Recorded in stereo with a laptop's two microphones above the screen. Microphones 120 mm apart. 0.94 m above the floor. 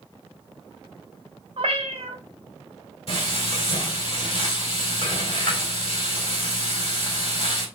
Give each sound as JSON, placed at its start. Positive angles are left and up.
{"t": 1.6, "sound": "a cat meowing", "side_deg": -60, "distance_m": 0.8}
{"t": 3.1, "sound": "frying", "side_deg": 55, "distance_m": 2.5}